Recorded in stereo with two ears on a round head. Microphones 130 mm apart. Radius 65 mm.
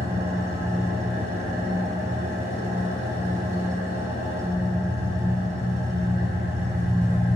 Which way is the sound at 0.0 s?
45° right (ahead or behind).